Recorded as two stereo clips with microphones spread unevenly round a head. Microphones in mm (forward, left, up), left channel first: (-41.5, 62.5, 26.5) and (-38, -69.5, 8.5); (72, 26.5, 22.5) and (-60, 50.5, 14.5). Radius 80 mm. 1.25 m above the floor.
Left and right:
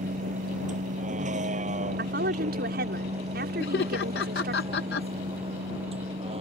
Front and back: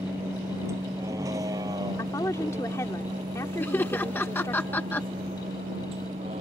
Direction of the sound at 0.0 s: 115° right.